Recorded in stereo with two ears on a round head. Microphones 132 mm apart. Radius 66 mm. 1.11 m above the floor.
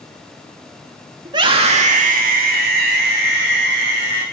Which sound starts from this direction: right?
A scream, at 1.2 s.